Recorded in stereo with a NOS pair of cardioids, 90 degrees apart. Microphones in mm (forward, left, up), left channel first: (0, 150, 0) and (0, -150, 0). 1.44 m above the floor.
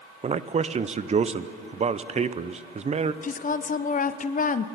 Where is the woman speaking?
25° left, 0.6 m.